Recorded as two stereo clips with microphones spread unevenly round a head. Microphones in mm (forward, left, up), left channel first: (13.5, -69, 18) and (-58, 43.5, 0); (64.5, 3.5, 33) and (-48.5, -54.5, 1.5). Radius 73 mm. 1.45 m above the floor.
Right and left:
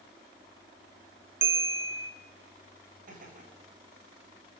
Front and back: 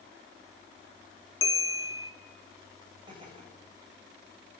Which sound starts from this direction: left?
A bell, at 1.4 s.